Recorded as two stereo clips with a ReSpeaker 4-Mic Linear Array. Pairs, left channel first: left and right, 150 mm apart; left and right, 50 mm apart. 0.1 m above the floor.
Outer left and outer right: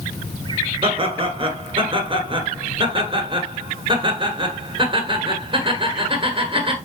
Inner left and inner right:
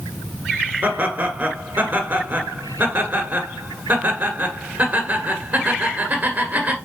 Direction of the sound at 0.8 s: 35° right (ahead or behind).